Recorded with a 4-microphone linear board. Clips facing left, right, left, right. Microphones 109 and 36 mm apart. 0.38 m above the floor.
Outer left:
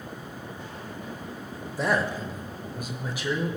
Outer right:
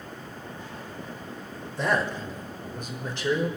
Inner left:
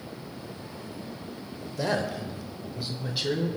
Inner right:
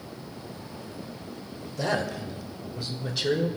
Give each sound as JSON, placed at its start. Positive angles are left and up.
{"t": 1.8, "sound": "a man speaking", "side_deg": 5, "distance_m": 1.1}